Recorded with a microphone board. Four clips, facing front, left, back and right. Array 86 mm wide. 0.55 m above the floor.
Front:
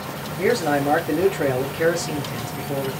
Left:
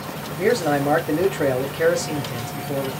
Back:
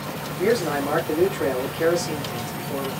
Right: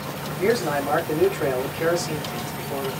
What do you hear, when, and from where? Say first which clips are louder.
0.4 s a man speaking: left 3 dB, front 2 dB; 60° left, 1.4 m